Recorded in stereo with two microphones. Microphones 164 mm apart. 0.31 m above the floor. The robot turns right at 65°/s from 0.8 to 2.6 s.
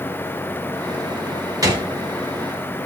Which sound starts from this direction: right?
A gunshot, at 1.6 s.